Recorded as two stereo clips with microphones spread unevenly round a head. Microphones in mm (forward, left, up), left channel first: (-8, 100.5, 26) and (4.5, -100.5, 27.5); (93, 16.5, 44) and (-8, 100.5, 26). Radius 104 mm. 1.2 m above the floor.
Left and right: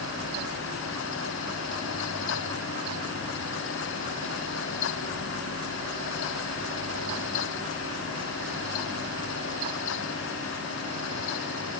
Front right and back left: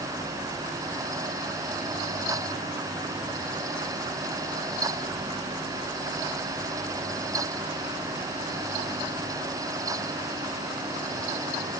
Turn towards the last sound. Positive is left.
No sound to turn to.